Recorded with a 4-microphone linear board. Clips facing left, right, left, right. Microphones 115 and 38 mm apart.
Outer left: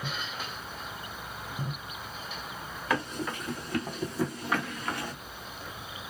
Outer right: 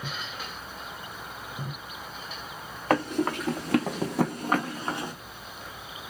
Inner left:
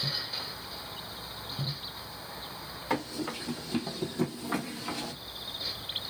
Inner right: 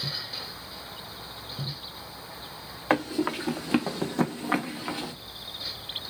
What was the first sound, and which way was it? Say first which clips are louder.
Running footsteps: outer right 7 dB, inner right 7 dB; 55° right (ahead or behind).